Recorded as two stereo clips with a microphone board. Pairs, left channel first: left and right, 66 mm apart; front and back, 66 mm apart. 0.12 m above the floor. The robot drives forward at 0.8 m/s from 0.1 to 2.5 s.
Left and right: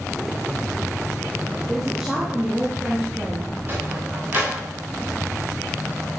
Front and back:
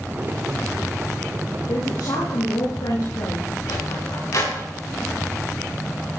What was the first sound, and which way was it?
A woman speaking, 10° right.